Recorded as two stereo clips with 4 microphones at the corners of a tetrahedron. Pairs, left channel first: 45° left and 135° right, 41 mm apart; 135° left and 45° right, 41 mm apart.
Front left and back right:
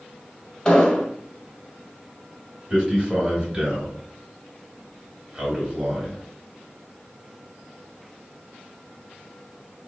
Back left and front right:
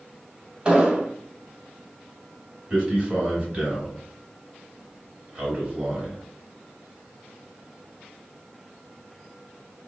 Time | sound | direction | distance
0.7 | an explosion | 10° right | 0.6 m
2.7 | a man speaking | 85° right | 1.2 m